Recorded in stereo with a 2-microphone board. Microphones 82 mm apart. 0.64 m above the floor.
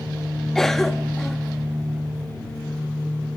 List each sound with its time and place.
0.6 s a cough: 5° left (ahead or behind), 1.0 m